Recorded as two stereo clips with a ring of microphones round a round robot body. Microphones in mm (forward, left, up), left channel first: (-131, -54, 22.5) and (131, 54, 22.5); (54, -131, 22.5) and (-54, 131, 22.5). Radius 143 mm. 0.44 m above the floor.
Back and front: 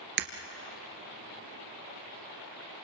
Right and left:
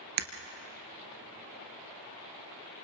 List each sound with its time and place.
0.2 s breaking glass: 75° left, 2.0 m